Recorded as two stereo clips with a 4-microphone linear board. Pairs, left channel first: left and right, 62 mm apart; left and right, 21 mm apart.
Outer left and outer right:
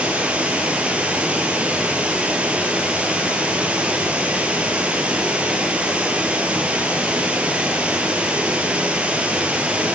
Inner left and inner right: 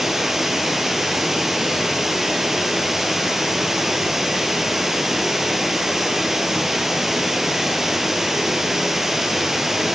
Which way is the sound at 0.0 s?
20° right (ahead or behind).